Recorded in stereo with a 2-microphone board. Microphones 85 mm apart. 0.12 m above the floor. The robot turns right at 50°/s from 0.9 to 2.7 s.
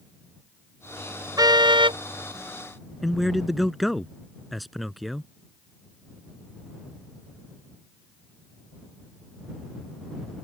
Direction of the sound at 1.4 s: 130° right.